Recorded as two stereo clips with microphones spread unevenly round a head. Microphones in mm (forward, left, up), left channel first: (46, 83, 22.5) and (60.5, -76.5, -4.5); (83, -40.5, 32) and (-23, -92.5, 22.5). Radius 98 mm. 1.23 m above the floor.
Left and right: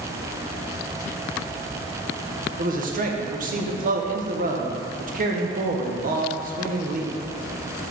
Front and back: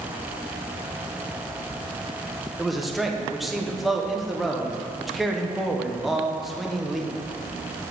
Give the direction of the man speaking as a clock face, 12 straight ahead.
2 o'clock.